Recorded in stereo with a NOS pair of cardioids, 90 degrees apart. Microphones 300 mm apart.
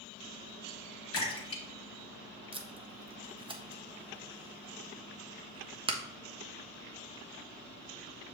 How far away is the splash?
About 2.5 m.